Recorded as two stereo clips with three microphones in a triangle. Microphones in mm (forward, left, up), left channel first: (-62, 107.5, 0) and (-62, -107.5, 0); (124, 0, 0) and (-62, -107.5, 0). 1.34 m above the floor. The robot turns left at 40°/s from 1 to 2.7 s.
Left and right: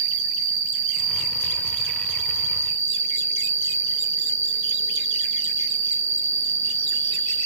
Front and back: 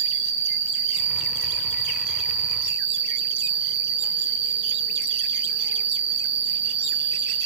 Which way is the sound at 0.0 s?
40° right.